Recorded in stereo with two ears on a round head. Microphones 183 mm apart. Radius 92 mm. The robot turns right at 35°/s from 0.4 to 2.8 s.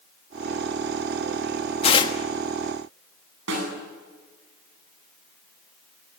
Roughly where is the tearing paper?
Left.